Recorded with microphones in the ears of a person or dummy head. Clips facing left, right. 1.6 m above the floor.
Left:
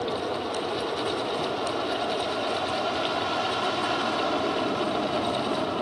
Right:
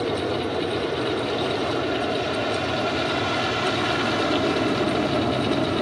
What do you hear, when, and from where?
0.0 s an aircraft: 25° right (ahead or behind)